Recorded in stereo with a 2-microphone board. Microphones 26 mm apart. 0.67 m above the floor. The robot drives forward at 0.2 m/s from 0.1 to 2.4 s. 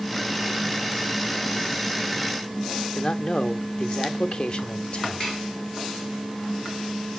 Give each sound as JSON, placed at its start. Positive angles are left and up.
{"t": 3.0, "sound": "a man speaking", "side_deg": 40, "distance_m": 0.7}
{"t": 5.2, "sound": "dishes clattering", "side_deg": 10, "distance_m": 6.5}